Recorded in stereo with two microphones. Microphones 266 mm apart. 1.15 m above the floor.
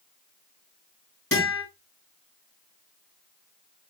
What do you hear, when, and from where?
1.3 s a guitar: 55° left (ahead or behind), 5 m